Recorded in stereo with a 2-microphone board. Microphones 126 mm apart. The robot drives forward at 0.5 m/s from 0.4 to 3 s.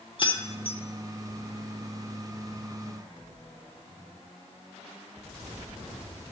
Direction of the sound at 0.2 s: 45° left (ahead or behind).